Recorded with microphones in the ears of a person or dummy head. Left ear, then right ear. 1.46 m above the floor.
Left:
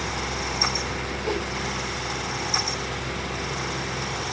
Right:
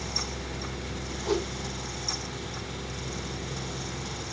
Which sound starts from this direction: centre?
A whoosh, at 1.2 s.